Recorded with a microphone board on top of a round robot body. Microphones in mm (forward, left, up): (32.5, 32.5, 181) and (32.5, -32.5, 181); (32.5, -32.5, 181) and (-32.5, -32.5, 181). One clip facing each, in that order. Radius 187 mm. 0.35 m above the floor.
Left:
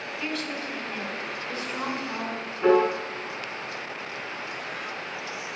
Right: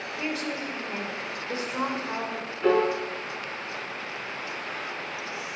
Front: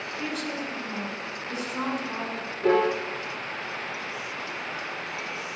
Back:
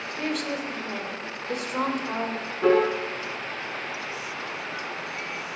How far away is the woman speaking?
About 3 m.